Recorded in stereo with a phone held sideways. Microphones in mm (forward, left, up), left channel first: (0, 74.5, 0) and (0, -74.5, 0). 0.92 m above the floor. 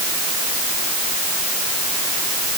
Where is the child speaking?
No child speaking in this recording.